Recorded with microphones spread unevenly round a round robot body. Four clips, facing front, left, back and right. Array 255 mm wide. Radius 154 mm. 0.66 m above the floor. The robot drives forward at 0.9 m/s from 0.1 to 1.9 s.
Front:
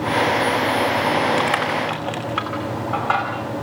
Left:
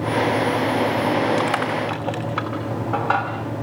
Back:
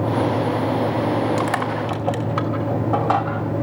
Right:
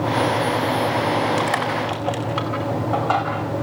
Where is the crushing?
160° left, 1.9 m; by 3.3 s 165° left, 2.5 m.